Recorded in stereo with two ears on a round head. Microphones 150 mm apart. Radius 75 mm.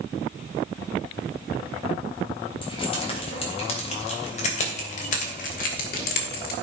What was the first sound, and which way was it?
Keys jangling, 35° left (ahead or behind).